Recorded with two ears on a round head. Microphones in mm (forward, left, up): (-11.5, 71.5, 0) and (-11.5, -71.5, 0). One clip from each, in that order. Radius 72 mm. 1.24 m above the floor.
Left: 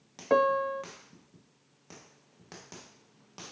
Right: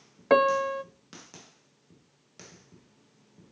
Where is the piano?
45° right (ahead or behind), 0.5 m.